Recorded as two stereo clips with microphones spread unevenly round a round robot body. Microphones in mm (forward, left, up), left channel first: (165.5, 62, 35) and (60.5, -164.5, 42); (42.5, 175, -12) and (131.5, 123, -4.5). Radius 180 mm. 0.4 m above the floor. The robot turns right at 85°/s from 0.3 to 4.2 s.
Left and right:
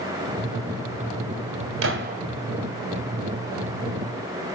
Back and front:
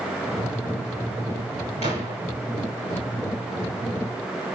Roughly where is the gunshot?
Right.